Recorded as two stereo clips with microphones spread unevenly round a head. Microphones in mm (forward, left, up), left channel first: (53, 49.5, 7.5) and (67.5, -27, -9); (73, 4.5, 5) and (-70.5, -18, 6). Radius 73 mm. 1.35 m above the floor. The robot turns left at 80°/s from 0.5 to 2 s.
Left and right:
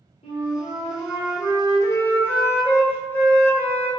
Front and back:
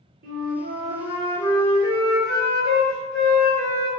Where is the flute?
150° left, 1.1 m; by 3.9 s 30° left, 1.1 m.